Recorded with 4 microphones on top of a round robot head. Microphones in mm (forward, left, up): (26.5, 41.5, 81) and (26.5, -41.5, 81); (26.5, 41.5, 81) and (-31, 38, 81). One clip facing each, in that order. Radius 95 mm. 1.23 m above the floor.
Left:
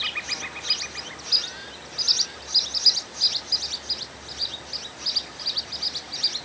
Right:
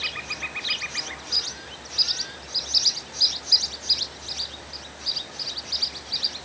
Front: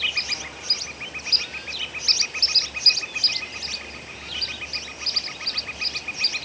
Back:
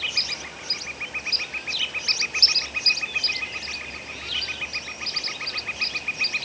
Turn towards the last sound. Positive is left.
No sound to turn to.